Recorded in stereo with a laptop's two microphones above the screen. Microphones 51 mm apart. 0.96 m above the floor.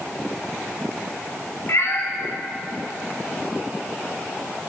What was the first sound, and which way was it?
A cat meowing, 60° left (ahead or behind).